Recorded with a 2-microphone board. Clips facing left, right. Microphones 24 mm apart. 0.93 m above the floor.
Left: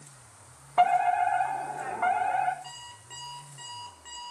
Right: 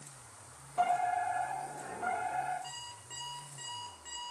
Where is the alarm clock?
10° left (ahead or behind), 4.5 m.